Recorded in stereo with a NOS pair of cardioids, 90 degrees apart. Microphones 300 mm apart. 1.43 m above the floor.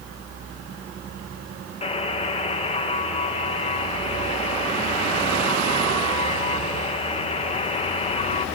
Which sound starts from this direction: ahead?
A buzzer, at 1.8 s.